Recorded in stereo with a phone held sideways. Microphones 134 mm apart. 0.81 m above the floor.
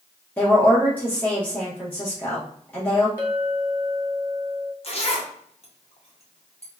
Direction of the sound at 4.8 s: 50° left (ahead or behind).